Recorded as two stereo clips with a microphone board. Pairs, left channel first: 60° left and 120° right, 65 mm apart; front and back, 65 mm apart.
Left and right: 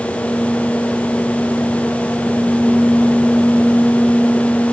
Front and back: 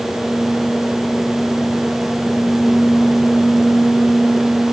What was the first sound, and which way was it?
Only background noise.